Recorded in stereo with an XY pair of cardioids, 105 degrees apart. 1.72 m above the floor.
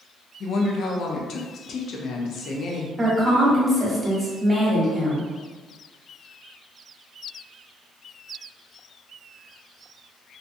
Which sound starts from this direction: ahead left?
A woman speaking, at 0.4 s.